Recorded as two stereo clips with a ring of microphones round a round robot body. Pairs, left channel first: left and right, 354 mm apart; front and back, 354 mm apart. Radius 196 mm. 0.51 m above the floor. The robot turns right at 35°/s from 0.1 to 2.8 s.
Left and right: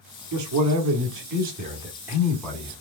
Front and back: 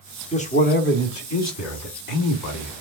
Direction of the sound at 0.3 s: 70° right.